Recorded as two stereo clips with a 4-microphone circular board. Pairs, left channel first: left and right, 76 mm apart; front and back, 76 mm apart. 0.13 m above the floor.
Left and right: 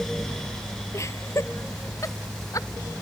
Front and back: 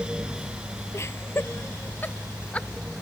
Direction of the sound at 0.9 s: 45° left.